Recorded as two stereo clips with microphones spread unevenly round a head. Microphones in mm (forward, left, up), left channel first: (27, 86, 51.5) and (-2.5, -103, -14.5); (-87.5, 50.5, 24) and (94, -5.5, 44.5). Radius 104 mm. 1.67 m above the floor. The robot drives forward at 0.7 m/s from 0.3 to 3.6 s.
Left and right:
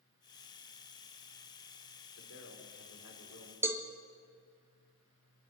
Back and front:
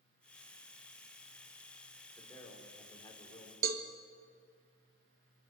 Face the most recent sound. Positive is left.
turn(degrees=-5)